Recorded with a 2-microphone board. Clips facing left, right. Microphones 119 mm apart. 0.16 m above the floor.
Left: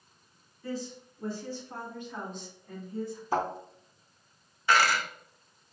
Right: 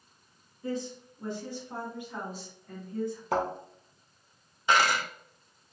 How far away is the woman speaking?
About 1.9 m.